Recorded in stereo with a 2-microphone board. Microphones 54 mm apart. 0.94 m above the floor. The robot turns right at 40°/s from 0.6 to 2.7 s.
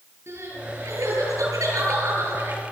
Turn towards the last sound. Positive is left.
turn(degrees=-40)